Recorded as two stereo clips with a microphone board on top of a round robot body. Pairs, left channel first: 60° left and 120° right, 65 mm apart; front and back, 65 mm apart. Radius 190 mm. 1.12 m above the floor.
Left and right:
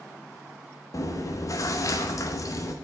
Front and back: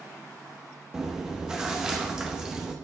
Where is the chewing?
100° left, 0.9 m.